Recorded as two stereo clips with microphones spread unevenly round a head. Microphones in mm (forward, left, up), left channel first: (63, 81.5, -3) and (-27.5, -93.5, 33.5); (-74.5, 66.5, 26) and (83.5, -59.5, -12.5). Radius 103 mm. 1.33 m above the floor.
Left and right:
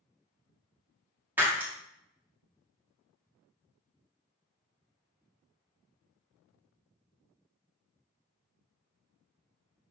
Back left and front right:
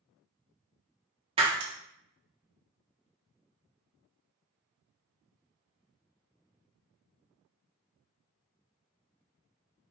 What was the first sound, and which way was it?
Breaking glass, 90° right.